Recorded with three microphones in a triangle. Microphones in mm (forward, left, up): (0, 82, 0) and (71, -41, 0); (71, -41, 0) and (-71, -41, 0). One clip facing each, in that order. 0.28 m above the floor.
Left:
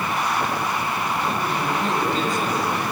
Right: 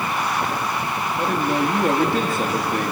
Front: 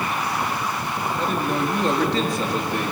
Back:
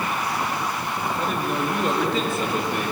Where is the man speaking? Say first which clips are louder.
Right 3 dB, front 3 dB; 95° right, 5.5 m.